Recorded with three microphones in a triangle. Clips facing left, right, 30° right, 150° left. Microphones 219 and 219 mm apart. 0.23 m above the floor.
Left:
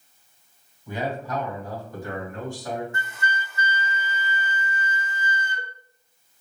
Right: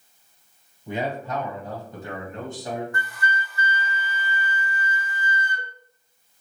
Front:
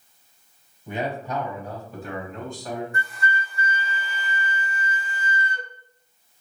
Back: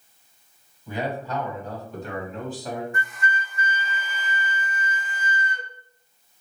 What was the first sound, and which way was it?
A man speaking, 60° right.